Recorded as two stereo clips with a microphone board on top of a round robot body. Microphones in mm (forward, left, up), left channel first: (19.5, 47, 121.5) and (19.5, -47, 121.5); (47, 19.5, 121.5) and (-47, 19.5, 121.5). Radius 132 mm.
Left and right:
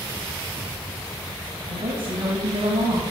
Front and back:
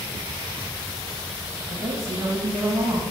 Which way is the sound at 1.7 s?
125° right.